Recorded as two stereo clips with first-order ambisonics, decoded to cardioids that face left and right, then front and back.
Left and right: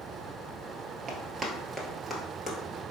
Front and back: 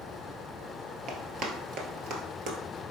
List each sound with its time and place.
1.1 s running footsteps: 150° right, 1.1 m; by 2.8 s 155° left, 1.2 m